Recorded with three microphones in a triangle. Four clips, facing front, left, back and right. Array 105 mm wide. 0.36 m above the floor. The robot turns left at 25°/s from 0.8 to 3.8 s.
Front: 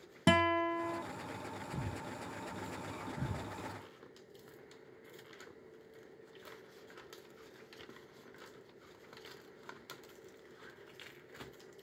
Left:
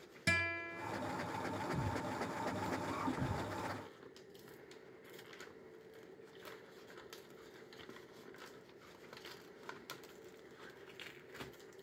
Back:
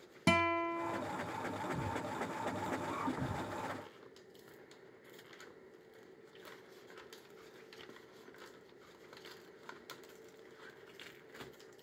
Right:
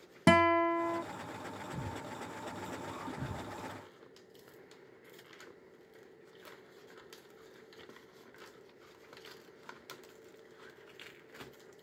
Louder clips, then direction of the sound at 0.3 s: Right 16 dB, front 3 dB; 85° right.